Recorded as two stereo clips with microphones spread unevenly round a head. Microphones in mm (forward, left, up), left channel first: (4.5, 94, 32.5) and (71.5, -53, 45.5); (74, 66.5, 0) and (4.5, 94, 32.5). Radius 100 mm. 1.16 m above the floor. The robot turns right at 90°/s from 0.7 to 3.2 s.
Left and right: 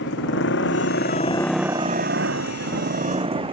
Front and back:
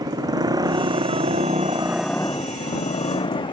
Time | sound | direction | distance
0.0 | a motorcycle | 125° left | ?